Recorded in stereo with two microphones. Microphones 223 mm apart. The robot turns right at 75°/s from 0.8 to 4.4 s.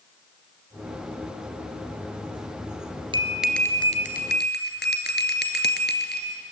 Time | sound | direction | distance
3.1 | a bell | 25° right | 2.0 m